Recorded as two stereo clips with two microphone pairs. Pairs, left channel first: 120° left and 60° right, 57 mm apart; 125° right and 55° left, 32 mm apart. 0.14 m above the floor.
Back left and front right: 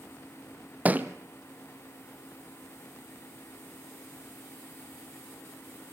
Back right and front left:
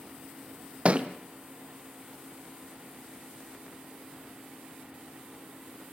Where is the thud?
5° left, 1.4 m.